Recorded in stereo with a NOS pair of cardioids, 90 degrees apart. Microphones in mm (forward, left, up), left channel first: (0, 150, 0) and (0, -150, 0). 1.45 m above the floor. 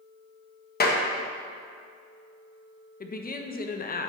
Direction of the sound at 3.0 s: 30° left.